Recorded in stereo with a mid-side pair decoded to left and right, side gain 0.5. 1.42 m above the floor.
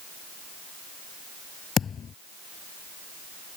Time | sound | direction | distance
1.8 | a thud | 45° left | ?